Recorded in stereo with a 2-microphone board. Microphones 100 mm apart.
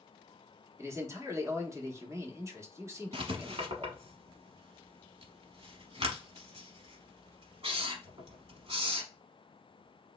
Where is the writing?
75° right (ahead or behind), 0.8 m.